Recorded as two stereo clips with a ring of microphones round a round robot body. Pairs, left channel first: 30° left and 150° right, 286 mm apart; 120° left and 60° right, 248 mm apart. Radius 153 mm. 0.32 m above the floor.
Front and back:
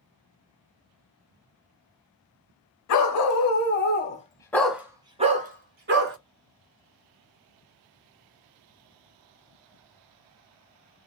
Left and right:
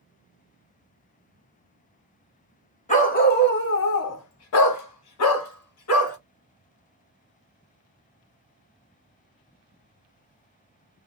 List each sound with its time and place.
2.9 s a dog barking: 55° left, 1.1 m; by 6.2 s 160° left, 1.3 m